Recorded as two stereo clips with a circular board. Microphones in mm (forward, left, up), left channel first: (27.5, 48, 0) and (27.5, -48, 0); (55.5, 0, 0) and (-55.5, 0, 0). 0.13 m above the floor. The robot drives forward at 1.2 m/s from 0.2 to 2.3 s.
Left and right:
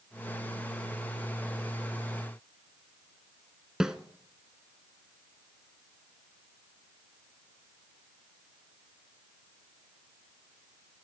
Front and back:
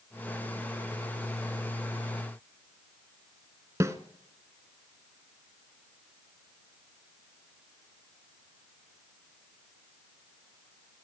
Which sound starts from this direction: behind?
A snare drum, at 3.8 s.